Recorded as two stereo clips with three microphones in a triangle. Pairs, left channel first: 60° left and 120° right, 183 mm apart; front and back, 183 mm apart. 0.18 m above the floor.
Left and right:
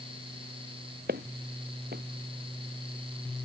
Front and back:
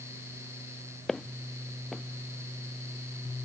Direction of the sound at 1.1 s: 90° right.